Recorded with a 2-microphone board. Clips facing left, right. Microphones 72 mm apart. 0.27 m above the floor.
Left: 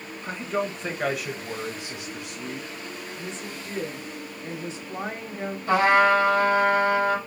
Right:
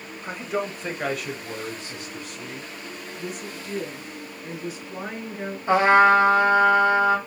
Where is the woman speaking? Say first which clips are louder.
Right 1 dB; 30° left (ahead or behind), 1.4 m.